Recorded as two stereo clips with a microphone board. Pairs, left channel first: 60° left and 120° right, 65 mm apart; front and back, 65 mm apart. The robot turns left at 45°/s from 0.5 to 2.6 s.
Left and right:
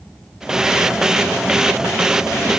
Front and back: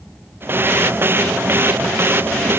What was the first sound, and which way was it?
Only background noise.